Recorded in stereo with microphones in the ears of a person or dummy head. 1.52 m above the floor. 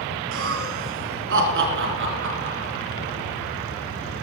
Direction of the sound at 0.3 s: 65° right (ahead or behind).